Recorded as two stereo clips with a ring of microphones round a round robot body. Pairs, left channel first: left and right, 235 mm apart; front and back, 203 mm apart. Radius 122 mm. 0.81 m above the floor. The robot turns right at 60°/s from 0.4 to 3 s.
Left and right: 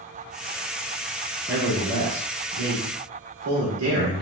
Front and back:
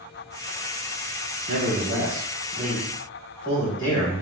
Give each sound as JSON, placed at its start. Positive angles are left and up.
{"t": 1.5, "sound": "a man speaking", "azimuth_deg": -170, "distance_m": 1.8}